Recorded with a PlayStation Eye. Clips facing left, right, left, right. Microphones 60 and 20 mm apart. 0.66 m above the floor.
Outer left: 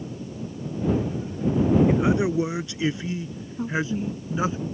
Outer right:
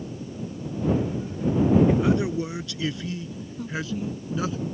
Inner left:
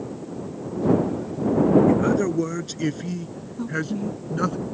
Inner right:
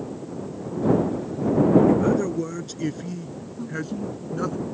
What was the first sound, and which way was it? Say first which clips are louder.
A man speaking: outer left 1 dB, even; 20° left (ahead or behind).